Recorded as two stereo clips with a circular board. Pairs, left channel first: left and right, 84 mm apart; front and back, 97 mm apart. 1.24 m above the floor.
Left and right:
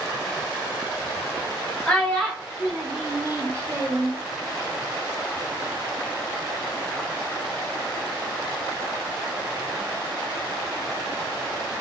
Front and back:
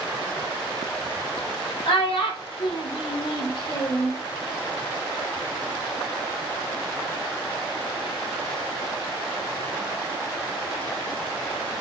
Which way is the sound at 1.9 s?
10° left.